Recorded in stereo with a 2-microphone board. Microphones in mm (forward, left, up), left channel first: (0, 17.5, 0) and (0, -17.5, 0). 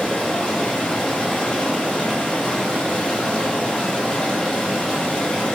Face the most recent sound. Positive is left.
turn(degrees=20)  # may be behind; listen again after turning